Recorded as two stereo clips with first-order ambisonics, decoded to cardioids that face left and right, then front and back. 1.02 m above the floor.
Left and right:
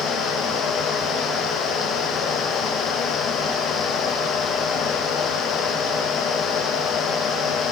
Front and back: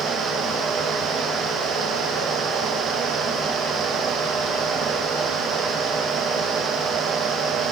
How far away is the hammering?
No hammering in this recording.